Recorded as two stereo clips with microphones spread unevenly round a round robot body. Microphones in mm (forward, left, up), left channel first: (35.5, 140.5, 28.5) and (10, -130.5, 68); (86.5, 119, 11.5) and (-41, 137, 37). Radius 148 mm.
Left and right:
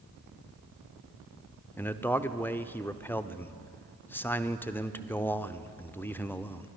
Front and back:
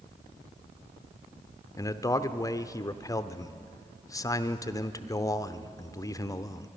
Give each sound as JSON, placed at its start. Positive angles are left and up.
{"t": 1.8, "sound": "a man speaking", "azimuth_deg": 15, "distance_m": 0.9}